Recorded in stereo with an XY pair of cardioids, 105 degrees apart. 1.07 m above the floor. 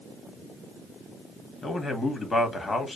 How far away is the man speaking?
About 1.8 m.